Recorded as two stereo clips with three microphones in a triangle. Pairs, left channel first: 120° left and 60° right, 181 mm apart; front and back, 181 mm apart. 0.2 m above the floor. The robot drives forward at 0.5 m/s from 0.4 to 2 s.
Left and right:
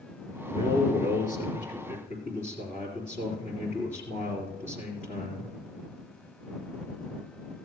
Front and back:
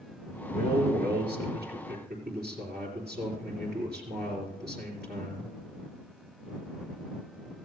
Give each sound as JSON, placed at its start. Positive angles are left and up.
{"t": 0.5, "sound": "a man speaking", "azimuth_deg": 155, "distance_m": 3.0}